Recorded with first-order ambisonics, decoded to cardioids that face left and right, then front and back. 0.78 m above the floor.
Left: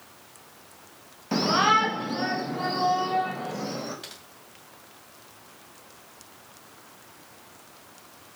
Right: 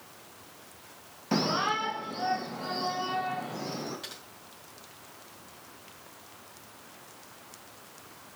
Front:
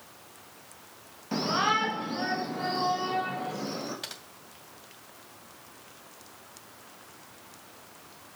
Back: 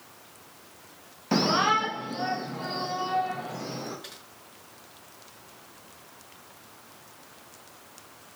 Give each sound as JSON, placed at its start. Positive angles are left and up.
{"t": 1.3, "sound": "a shout", "azimuth_deg": -175, "distance_m": 0.6}
{"t": 4.0, "sound": "typing on a keyboard", "azimuth_deg": 10, "distance_m": 1.7}